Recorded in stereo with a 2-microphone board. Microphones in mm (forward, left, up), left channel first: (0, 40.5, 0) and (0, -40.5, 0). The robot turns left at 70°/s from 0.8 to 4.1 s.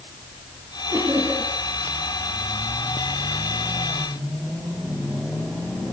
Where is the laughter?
130° right, 9 m; by 1.5 s 175° right, 9 m.